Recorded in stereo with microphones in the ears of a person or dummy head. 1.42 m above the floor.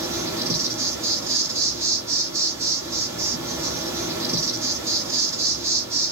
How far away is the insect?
About 5 m.